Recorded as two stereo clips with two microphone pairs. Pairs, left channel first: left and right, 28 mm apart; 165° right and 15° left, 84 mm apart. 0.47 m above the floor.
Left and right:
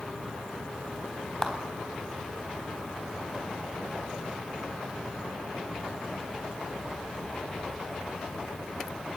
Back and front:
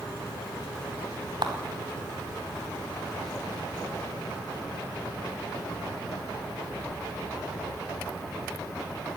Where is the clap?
5° left, 3.5 m.